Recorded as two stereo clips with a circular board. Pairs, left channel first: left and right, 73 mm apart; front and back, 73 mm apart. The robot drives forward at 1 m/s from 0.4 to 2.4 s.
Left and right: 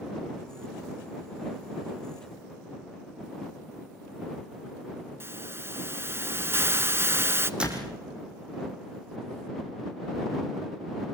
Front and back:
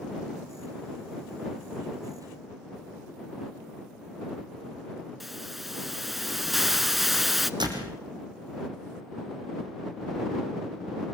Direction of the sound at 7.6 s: 165° right.